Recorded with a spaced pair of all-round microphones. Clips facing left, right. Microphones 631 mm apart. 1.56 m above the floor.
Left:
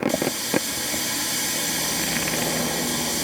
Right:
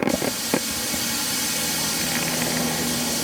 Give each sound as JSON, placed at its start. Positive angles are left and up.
{"t": 0.1, "sound": "a running tap", "side_deg": -35, "distance_m": 2.5}